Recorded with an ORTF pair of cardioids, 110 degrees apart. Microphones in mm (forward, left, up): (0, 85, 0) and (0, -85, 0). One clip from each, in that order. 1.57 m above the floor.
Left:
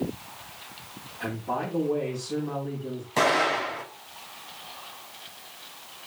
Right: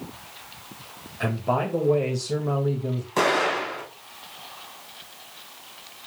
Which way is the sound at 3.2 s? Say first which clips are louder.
Right 1 dB; straight ahead.